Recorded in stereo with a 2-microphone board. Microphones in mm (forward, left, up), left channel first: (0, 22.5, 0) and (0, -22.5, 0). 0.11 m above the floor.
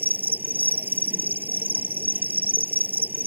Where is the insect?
45° right (ahead or behind).